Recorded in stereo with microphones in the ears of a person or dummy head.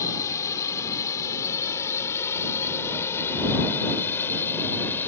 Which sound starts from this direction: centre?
A drone, at 0.0 s.